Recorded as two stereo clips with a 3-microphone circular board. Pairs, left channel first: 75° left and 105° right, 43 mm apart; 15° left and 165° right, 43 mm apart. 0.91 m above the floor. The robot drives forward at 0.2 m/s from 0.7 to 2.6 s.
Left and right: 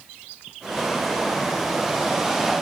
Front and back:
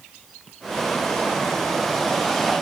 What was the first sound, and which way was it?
Only background noise.